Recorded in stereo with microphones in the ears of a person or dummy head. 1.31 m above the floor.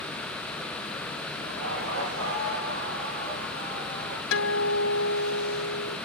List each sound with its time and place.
1.4 s laughter: 70° right (ahead or behind), 4.5 m; by 4.2 s 85° right, 5.5 m
4.3 s a guitar: 80° left, 3 m